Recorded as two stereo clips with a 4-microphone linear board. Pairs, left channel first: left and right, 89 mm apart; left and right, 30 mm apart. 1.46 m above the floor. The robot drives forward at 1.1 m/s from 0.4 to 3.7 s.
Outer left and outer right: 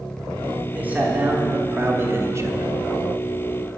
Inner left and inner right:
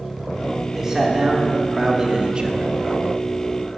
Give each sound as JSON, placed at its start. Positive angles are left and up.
{"t": 0.7, "sound": "a man speaking", "side_deg": -15, "distance_m": 3.5}